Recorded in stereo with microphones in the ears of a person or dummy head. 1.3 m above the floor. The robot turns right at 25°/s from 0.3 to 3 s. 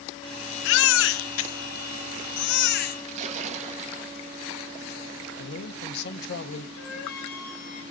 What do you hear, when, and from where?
0.7 s a baby crying: 70° left (ahead or behind), 1.0 m; by 3.0 s 55° left (ahead or behind), 1.0 m
3.1 s a splash: 40° right (ahead or behind), 1.7 m
5.4 s a man speaking: 65° left (ahead or behind), 1.7 m
6.8 s a flute: 80° left, 5.5 m